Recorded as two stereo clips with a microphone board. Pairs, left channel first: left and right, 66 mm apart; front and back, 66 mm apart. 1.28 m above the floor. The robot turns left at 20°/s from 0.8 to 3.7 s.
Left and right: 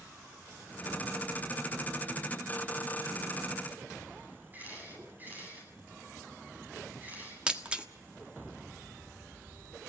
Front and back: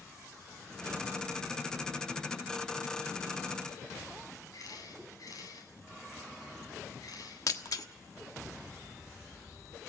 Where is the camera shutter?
30° right, 9 m.